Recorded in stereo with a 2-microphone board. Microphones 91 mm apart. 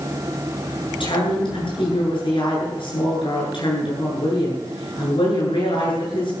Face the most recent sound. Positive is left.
turn(degrees=65)  # may be behind; listen again after turning